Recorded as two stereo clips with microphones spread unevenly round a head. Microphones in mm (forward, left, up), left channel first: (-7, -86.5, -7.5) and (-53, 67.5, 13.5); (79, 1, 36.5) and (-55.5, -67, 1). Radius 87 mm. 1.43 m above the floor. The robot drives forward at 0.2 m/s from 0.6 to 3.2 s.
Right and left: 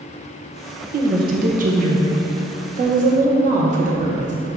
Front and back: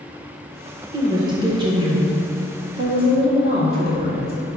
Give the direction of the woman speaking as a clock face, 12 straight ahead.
7 o'clock.